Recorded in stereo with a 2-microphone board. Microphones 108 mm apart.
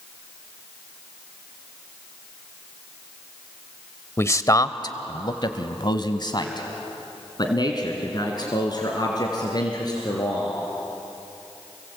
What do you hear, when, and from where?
4.2 s a man speaking: 25° left (ahead or behind), 1.0 m; by 10.5 s 35° left (ahead or behind), 5 m